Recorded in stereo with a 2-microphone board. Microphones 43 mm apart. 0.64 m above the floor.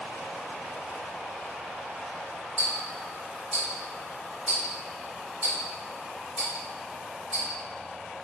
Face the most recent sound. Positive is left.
turn(degrees=-25)  # may be behind; listen again after turning